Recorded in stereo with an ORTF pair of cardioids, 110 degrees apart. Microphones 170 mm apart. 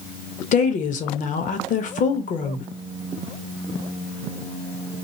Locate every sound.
0.5 s a woman speaking: 50° left, 0.9 m